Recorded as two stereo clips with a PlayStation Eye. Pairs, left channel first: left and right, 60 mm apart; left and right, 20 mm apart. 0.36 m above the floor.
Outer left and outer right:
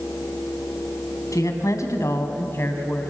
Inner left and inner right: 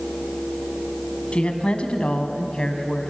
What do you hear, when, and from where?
1.3 s a woman speaking: 70° left (ahead or behind), 2.5 m; by 3.1 s 35° left (ahead or behind), 2.5 m